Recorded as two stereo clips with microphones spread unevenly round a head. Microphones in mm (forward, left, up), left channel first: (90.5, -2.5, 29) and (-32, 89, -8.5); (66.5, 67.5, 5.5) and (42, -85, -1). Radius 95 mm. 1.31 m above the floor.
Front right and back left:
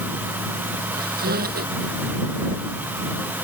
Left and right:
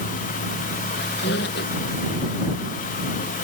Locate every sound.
0.9 s a squeak: 120° left